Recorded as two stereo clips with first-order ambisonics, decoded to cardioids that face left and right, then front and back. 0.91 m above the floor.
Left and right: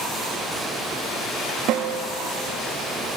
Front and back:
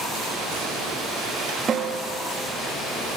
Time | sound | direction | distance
1.7 | a snare drum | 115° right | 1.0 m